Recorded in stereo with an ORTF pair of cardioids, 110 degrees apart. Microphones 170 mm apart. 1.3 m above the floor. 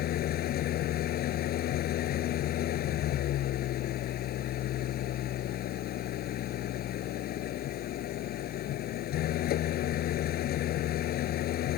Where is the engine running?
65° left.